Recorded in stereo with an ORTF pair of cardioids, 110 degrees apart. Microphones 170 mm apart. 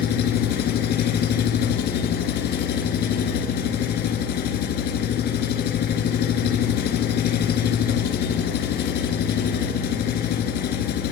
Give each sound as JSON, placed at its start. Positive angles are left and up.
{"t": 0.0, "sound": "an engine running", "azimuth_deg": 65, "distance_m": 1.9}